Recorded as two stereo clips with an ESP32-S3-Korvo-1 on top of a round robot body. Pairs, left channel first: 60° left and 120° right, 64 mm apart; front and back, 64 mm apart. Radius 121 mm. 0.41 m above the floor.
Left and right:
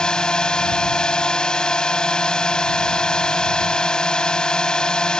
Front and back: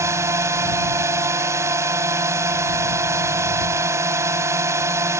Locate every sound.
0.0 s a drone: 135° left